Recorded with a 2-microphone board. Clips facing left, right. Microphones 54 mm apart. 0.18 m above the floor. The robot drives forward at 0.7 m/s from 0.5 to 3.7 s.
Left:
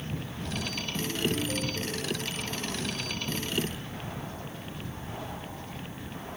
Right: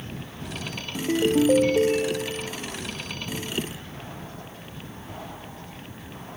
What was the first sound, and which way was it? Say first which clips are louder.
A ringtone: right 10 dB; 60° right (ahead or behind).